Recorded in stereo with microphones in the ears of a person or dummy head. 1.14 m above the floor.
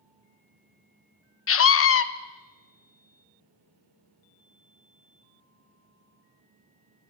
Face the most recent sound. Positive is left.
turn(degrees=65)  # may be behind; listen again after turning